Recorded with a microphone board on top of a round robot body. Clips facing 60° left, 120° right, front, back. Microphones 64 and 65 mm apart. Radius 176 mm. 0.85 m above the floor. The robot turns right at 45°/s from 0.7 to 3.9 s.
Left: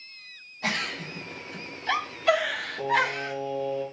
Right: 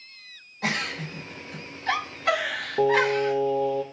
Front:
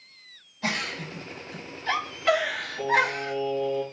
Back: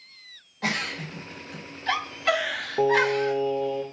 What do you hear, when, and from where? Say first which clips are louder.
0.6 s a giggle: right 2 dB, back 1 dB; 150° right, 3 m; by 3.3 s 30° right, 3 m
2.8 s singing: right 5 dB, back 4 dB; 135° right, 0.6 m; by 3.8 s 85° right, 0.6 m